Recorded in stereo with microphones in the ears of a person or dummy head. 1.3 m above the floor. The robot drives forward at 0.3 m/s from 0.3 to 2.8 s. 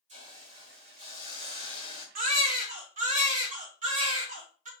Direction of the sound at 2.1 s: 45° right (ahead or behind).